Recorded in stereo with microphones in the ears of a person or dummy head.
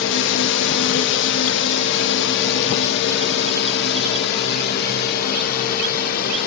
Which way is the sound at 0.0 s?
65° left (ahead or behind).